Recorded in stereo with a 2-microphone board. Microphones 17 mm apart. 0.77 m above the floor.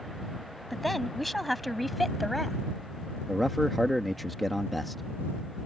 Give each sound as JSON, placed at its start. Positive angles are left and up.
{"t": 0.7, "sound": "a woman speaking", "side_deg": 10}
{"t": 3.3, "sound": "a man speaking", "side_deg": 0}